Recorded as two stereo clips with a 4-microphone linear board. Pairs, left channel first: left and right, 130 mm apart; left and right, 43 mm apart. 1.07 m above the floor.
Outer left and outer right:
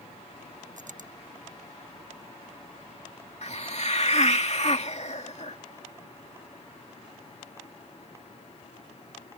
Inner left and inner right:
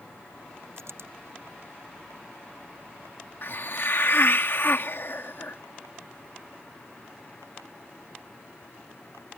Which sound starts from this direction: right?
A dropped coin, at 0.8 s.